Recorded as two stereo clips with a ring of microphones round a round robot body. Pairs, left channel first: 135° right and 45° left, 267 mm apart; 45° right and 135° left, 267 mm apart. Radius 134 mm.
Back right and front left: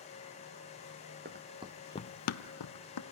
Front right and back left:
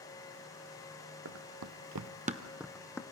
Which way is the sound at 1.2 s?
100° left.